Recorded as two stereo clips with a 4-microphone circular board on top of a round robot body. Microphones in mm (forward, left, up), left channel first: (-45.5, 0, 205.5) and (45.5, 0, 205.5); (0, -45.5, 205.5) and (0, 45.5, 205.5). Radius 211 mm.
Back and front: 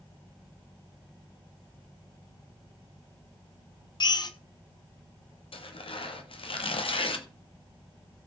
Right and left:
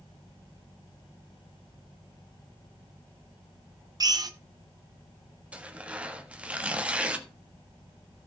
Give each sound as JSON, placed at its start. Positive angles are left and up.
{"t": 4.0, "sound": "a drill", "azimuth_deg": 135, "distance_m": 0.9}
{"t": 5.5, "sound": "tearing paper", "azimuth_deg": 165, "distance_m": 1.5}